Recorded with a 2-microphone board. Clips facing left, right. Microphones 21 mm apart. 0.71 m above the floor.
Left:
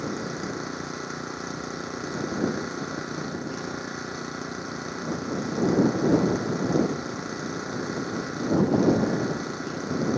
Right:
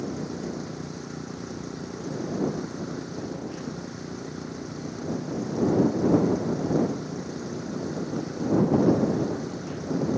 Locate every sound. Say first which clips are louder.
0.0 s an engine running: left 1 dB; 45° left (ahead or behind)